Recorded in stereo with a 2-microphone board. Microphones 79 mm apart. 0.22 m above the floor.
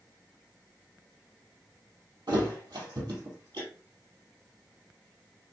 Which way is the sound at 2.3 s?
75° right (ahead or behind).